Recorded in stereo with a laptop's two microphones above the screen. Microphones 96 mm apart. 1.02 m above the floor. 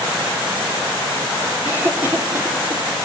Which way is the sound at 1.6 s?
25° right (ahead or behind).